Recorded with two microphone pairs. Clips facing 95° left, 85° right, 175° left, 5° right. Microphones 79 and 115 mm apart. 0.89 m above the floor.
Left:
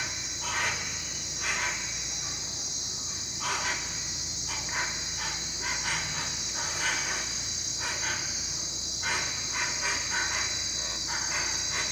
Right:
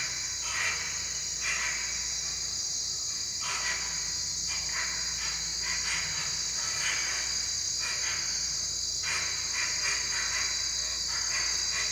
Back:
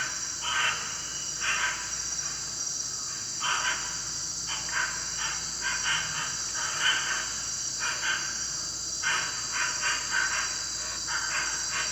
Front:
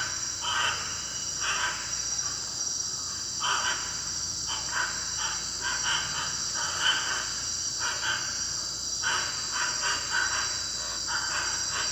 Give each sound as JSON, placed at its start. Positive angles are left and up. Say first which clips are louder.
{"t": 0.0, "sound": "an insect", "louder": "left 4 dB, front 1 dB", "azimuth_deg": 65, "distance_m": 1.2}